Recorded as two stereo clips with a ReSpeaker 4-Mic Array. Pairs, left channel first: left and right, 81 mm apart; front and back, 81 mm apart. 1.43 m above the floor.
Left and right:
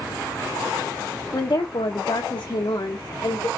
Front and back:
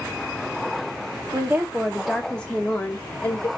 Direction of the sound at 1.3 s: 130° left.